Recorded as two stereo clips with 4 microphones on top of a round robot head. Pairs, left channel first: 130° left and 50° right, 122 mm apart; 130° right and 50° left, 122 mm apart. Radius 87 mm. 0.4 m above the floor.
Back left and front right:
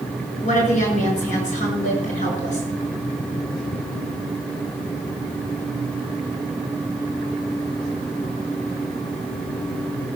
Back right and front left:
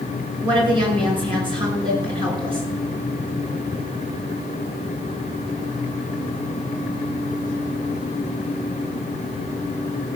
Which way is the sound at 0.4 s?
105° left.